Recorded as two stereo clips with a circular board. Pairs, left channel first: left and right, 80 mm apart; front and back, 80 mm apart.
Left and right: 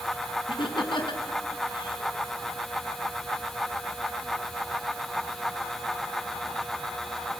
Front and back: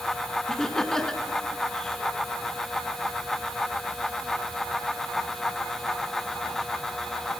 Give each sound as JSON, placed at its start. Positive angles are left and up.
{"t": 0.5, "sound": "laughter", "azimuth_deg": 85, "distance_m": 4.0}